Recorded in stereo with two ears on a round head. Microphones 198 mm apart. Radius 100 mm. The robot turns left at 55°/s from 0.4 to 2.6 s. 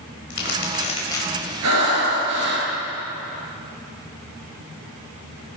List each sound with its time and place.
0.3 s crumpling: 55° left (ahead or behind), 5 m; by 1.5 s 5° right (ahead or behind), 5 m
1.6 s breathing: 80° right, 8.5 m; by 2.7 s 135° right, 8.5 m